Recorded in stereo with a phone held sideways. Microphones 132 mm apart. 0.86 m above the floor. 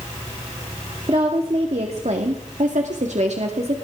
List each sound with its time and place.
1.1 s a woman speaking: 45° right (ahead or behind), 2 m; by 3.8 s 55° right (ahead or behind), 1.9 m